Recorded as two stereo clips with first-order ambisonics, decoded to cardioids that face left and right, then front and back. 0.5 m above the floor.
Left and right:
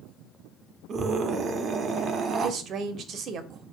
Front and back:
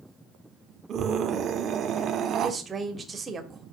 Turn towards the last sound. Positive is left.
turn(degrees=-115)